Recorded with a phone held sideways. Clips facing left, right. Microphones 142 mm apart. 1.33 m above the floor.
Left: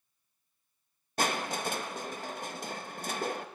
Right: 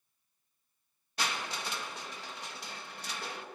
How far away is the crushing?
About 1.0 m.